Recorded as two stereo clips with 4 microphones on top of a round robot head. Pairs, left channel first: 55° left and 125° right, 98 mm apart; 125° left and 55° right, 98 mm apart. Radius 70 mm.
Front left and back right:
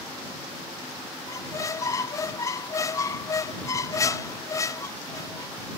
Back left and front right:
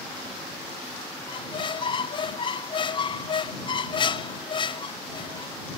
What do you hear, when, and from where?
1.3 s a squeak: 105° left